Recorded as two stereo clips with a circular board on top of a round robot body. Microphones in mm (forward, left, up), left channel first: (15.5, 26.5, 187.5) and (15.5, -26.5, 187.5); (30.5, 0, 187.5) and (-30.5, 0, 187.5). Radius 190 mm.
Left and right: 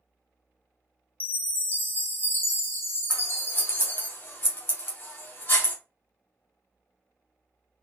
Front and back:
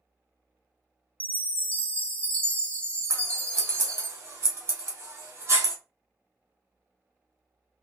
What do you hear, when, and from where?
1.2 s a chime: 60° left, 1.5 m
3.1 s scissors: 135° left, 1.1 m